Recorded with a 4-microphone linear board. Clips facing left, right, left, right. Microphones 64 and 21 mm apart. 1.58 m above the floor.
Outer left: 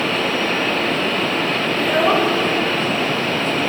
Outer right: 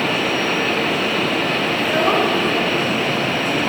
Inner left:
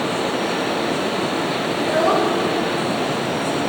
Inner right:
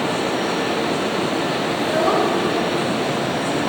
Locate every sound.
1.8 s a child speaking: 5° left (ahead or behind), 1.4 m; by 3.6 s 20° right (ahead or behind), 2.0 m